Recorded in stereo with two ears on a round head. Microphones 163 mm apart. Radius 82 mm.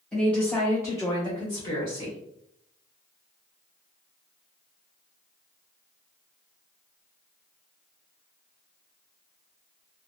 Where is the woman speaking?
5° left (ahead or behind), 1.5 m; by 2.2 s 30° left (ahead or behind), 1.6 m.